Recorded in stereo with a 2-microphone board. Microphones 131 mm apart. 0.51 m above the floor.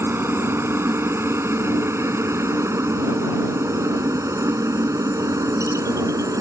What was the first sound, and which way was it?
A helicopter, 20° right (ahead or behind).